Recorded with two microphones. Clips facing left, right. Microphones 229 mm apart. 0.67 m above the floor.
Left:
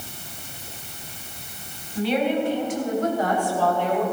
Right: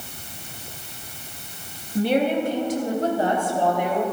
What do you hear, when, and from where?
1.9 s a woman speaking: 55° right (ahead or behind), 3.5 m; by 4.0 s 10° right (ahead or behind), 3 m